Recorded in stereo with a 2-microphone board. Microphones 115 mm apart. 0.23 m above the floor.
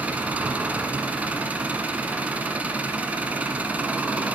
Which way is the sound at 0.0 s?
15° right (ahead or behind).